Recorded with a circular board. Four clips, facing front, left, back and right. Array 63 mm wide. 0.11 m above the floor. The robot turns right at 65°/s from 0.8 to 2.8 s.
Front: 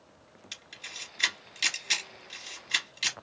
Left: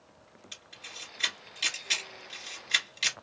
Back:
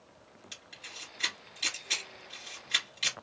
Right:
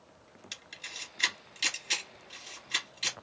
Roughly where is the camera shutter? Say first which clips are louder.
Right 2 dB, front 4 dB; ahead right.